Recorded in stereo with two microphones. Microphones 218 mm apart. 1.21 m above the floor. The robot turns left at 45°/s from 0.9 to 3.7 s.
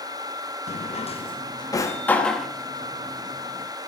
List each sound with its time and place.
0.7 s a drawer: 30° left (ahead or behind), 0.6 m; by 2.5 s centre (ahead or behind), 0.6 m